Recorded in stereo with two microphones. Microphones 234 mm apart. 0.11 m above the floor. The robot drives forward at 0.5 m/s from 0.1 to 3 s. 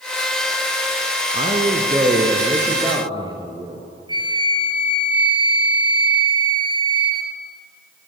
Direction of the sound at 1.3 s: 25° right (ahead or behind).